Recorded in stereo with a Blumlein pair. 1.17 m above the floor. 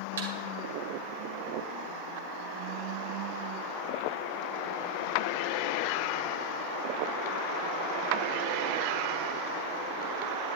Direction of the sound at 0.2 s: 65° right.